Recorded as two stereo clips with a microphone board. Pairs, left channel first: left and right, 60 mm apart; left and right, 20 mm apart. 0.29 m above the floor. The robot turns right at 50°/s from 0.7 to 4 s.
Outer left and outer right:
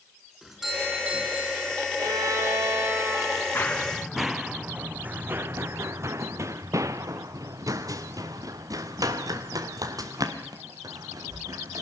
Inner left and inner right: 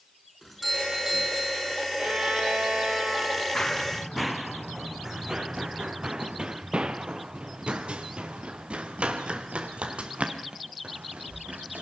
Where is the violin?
90° right, 7.5 m; by 4.1 s 15° left, 7.5 m.